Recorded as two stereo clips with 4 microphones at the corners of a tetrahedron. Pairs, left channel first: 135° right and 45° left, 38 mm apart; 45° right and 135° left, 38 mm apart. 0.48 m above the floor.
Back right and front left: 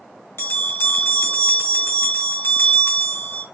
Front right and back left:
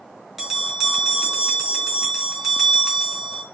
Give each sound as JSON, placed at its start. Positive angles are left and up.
{"t": 0.4, "sound": "a bell", "azimuth_deg": -145, "distance_m": 3.0}